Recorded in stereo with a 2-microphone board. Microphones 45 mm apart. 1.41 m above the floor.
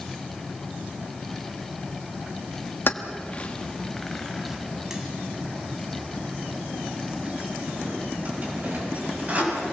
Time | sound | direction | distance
2.9 | keys jangling | 45° left (ahead or behind) | 1.4 m